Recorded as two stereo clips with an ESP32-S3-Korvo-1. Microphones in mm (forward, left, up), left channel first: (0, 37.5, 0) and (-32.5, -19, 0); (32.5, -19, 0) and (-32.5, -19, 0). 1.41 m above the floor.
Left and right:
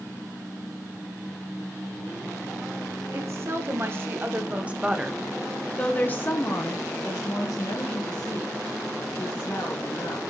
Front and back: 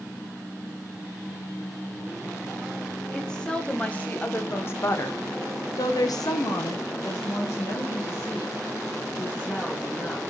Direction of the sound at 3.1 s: 80° right.